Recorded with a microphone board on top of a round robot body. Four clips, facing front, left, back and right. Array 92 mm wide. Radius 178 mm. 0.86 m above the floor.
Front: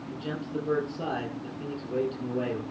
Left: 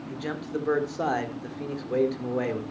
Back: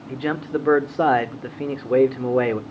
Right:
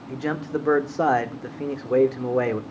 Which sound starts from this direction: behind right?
A man speaking, at 0.1 s.